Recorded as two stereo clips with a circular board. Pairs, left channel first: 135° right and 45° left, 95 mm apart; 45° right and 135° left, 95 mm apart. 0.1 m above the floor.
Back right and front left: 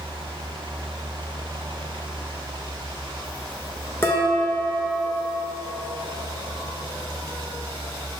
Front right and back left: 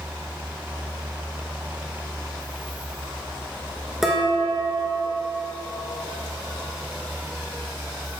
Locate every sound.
4.0 s dishes clattering: 145° right, 1.0 m